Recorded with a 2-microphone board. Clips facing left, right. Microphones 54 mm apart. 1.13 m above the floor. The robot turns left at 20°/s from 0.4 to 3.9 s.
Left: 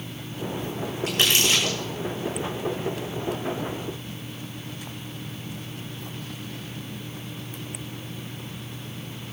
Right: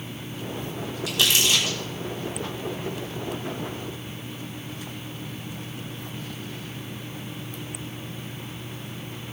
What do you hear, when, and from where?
1.1 s crumpling: 45° left (ahead or behind), 6 m; by 1.8 s 60° left (ahead or behind), 6 m